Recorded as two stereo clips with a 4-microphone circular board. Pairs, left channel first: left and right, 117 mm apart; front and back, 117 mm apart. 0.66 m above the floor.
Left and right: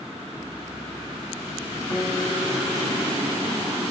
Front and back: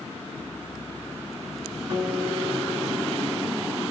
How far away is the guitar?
About 3 m.